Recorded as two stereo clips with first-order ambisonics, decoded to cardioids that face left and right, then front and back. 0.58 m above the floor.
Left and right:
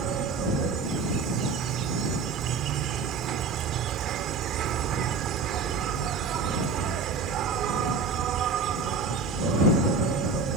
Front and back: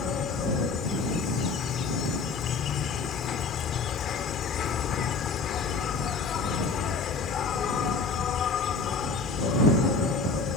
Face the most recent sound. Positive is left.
turn(degrees=-50)